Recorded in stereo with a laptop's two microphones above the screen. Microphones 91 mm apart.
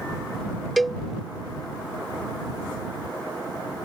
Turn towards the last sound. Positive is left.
turn(degrees=0)  # may be behind; listen again after turning